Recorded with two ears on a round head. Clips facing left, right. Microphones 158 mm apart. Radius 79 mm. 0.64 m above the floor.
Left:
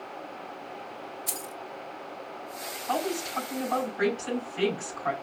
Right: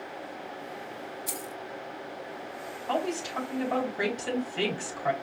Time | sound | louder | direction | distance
1.3 | keys jangling | right 1 dB | centre (ahead or behind) | 1.1 m
2.9 | a woman speaking | even | 75° right (ahead or behind) | 2.5 m